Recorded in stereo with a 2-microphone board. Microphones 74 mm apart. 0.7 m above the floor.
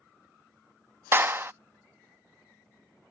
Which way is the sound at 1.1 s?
30° right (ahead or behind).